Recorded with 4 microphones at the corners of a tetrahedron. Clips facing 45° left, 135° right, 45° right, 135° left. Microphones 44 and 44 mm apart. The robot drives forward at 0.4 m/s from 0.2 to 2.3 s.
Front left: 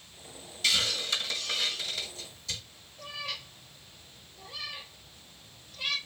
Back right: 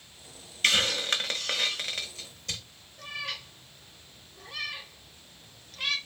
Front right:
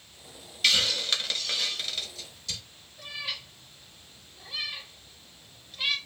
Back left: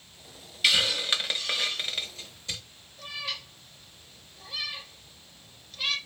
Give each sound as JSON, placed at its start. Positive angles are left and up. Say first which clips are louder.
{"t": 0.6, "sound": "a hiss", "louder": "back right 4 dB, back left 1 dB", "azimuth_deg": -145, "distance_m": 0.6}
{"t": 3.0, "sound": "a cat meowing", "louder": "back right 2 dB, even", "azimuth_deg": -120, "distance_m": 1.2}